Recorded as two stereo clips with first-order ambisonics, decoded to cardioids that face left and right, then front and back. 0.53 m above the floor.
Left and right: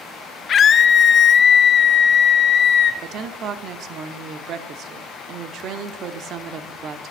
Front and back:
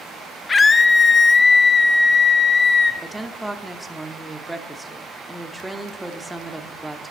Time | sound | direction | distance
0.5 | a scream | 60° left | 0.7 m
3.0 | a woman speaking | 100° right | 0.8 m